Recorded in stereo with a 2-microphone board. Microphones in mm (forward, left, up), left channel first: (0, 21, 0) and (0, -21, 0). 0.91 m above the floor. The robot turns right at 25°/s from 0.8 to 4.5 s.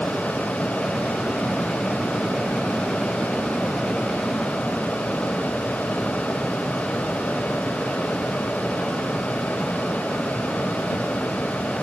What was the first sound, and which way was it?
Only background noise.